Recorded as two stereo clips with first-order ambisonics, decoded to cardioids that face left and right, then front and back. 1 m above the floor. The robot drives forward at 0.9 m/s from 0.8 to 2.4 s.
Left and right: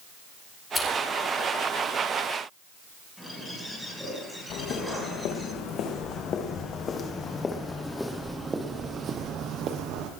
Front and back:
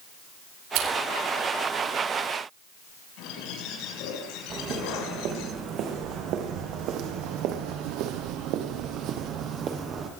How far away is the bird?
About 6.5 m.